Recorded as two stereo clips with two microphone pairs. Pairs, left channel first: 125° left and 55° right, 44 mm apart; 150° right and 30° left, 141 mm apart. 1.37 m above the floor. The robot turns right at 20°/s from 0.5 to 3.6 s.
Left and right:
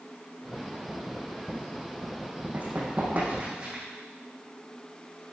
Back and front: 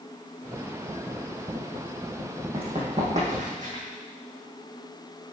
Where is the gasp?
No gasp in this recording.